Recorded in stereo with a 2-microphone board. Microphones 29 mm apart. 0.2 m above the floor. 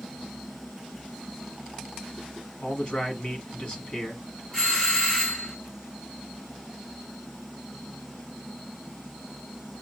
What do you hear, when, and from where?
2.6 s a man speaking: 35° left (ahead or behind), 1.8 m
4.5 s a doorbell: 20° left (ahead or behind), 2.5 m